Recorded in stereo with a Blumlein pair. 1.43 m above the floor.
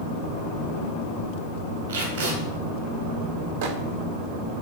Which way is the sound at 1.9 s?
70° right.